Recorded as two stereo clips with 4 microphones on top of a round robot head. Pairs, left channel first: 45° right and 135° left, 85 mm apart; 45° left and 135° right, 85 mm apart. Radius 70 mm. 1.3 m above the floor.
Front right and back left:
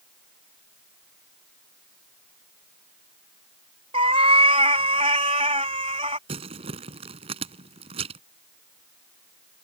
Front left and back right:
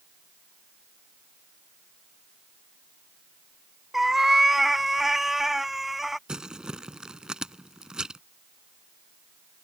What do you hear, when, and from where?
3.9 s a cat meowing: 140° left
6.3 s crumpling: 145° left